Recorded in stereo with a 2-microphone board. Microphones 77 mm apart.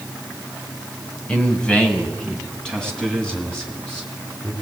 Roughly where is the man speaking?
Centre.